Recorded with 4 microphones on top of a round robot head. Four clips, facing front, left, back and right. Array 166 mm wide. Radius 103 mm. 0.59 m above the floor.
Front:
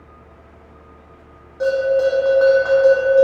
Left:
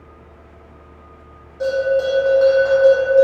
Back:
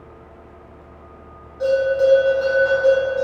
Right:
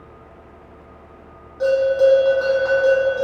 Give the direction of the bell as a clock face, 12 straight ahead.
12 o'clock.